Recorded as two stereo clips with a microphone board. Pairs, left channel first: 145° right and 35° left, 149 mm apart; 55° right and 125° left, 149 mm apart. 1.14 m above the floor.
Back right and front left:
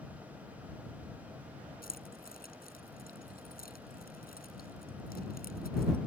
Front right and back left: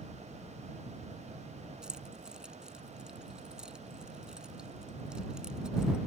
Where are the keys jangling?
150° right.